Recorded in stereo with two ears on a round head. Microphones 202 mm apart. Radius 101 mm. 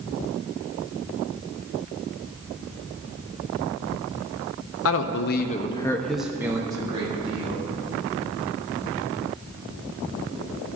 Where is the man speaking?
65° left (ahead or behind), 0.8 m; by 7.7 s 30° right (ahead or behind), 1.7 m.